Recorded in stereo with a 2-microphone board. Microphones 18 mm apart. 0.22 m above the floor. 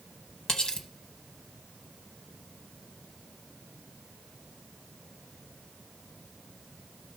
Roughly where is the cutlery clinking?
Left.